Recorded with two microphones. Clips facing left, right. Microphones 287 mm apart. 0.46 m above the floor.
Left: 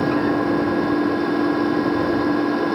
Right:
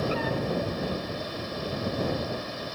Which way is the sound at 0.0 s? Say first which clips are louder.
Left 11 dB; 80° left.